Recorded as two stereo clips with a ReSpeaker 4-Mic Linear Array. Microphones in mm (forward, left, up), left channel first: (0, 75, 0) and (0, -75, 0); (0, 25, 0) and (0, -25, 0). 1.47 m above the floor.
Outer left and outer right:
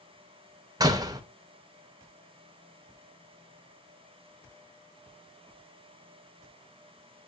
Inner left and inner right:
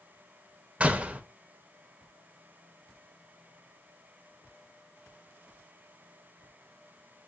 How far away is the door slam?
About 0.5 m.